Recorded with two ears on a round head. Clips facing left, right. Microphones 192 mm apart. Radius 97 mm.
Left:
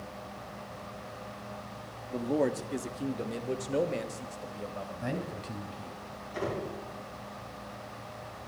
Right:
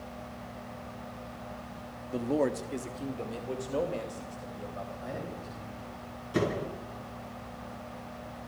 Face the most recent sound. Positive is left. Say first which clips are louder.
# right 5 dB
turn(degrees=-75)  # may be behind; listen again after turning